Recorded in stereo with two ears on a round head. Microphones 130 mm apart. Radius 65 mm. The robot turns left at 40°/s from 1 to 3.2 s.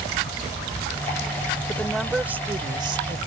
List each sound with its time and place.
1.7 s a woman speaking: 15° left; by 3.2 s 45° right